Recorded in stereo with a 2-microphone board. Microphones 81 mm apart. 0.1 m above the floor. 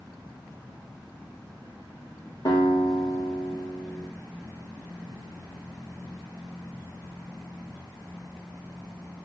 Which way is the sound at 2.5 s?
55° left (ahead or behind).